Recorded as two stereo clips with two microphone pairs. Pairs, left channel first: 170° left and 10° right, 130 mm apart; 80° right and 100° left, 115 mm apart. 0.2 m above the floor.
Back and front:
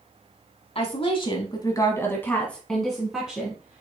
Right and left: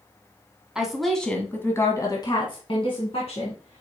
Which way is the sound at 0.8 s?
Straight behind.